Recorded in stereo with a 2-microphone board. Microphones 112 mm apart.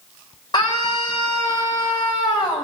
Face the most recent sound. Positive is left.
turn(degrees=40)  # may be behind; listen again after turning